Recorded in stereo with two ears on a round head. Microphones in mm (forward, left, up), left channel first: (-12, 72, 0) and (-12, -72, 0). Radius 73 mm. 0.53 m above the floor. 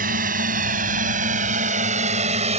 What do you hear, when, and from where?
0.0 s a drone: 60° right (ahead or behind); by 2.6 s 45° right (ahead or behind)